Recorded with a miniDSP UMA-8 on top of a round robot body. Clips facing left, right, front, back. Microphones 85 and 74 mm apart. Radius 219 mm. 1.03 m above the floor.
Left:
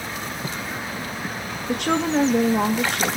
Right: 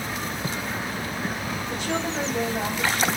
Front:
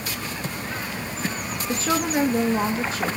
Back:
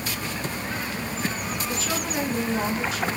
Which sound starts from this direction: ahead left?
A woman speaking, at 1.7 s.